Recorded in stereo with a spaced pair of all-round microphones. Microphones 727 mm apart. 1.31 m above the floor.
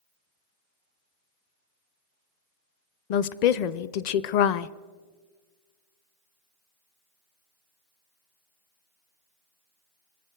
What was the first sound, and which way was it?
A woman speaking, 70° left (ahead or behind).